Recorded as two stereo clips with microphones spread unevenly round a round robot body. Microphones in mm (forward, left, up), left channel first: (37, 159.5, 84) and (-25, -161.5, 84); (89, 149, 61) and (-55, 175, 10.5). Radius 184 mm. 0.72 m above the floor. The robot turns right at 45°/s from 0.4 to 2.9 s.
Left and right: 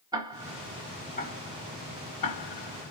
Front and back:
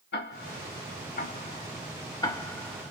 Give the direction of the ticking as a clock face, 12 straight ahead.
1 o'clock.